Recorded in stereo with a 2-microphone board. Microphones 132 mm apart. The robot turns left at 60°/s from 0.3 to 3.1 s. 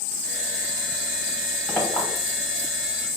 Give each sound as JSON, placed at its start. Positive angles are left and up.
{"t": 1.7, "sound": "a clink", "side_deg": 15, "distance_m": 1.2}